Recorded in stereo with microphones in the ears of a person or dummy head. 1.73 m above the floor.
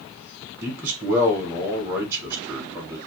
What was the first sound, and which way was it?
A man speaking, 15° right (ahead or behind).